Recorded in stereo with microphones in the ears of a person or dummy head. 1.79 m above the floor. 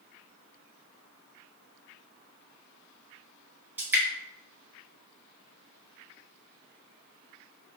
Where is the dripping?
10° right (ahead or behind), 1.1 m.